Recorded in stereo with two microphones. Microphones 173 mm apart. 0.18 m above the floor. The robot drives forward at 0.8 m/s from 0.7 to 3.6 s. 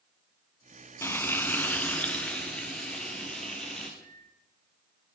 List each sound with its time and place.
1.0 s frying: 15° left (ahead or behind), 0.8 m; by 3.9 s 5° left (ahead or behind), 2.5 m
4.0 s a microwave: 80° right, 8.5 m